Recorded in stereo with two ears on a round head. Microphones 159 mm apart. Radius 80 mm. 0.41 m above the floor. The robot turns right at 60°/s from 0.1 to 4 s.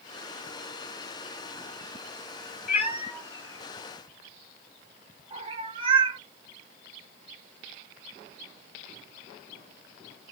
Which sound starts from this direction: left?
A cat meowing, at 2.7 s.